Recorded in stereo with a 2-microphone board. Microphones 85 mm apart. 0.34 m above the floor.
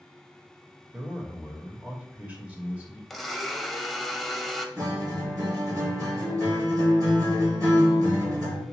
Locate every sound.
0.9 s a man speaking: 15° right (ahead or behind), 1.2 m
3.1 s a blender: centre (ahead or behind), 0.5 m
4.8 s a guitar: 45° right (ahead or behind), 2.0 m